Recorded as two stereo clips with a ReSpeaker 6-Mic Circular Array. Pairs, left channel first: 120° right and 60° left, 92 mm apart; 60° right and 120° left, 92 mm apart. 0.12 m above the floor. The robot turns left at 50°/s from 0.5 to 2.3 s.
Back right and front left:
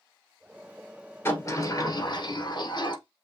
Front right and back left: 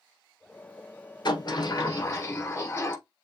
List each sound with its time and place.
1.2 s a sliding door: 65° right, 1.3 m; by 3.0 s 115° right, 1.3 m